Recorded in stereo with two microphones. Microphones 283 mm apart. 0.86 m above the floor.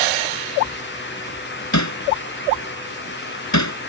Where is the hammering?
80° left.